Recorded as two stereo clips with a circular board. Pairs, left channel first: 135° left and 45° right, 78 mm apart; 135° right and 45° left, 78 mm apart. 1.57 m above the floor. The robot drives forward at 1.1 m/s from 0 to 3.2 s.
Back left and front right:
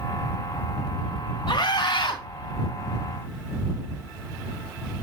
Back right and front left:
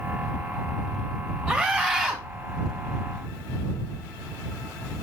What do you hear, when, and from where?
1.5 s a scream: 130° left, 2.5 m; by 2.2 s 140° left, 3 m